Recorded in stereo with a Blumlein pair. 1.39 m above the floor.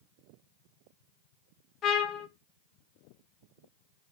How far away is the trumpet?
About 1.5 m.